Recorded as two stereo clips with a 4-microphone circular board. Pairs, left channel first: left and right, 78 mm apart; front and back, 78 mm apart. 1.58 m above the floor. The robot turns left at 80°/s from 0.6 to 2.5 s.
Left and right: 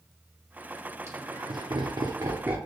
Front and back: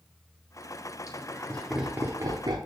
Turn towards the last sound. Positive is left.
turn(degrees=-160)